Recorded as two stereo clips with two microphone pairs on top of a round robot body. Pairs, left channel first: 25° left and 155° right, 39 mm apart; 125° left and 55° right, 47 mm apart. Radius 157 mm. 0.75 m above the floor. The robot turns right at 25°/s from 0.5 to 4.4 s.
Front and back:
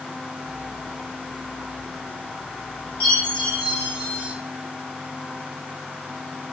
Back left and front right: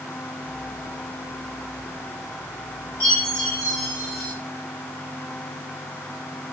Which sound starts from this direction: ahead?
A chime, at 3.0 s.